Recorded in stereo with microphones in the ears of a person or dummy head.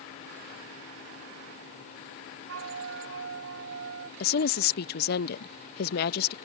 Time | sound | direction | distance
2.5 | a flute | 85° right | ?
4.2 | a woman speaking | 60° left (ahead or behind) | ?